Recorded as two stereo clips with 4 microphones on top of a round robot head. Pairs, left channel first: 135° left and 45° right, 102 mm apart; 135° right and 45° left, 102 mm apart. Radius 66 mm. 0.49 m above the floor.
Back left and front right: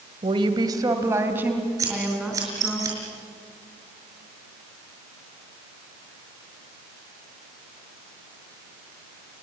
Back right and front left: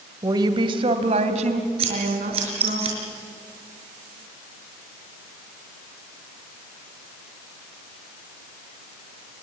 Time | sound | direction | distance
0.2 | a woman speaking | 10° right | 2 m
1.8 | scissors | 15° left | 6 m